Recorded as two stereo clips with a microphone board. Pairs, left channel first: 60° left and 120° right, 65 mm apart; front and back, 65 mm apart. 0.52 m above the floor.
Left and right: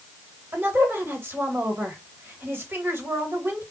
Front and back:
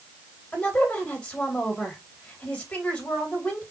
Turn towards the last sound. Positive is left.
turn(degrees=-65)